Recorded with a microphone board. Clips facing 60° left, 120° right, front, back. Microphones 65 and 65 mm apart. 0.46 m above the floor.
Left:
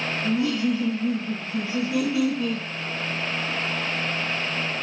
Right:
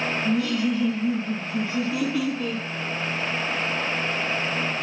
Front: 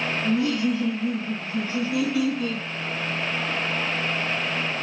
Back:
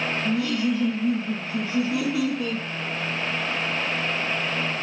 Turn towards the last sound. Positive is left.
turn(degrees=130)